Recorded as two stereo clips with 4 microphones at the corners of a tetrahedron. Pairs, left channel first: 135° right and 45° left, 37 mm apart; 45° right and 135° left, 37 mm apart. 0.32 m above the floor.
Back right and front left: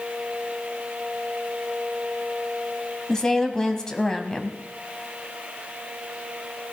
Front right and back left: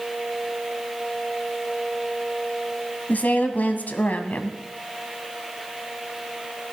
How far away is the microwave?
I don't hear a microwave.